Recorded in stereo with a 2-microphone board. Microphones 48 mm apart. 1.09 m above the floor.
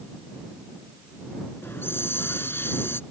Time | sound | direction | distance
1.6 | a hiss | 50° left (ahead or behind) | ?